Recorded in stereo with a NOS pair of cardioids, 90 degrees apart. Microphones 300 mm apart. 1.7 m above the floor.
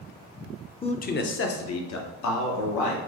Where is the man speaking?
20° left, 0.6 m; by 3.0 s 75° left, 1.5 m.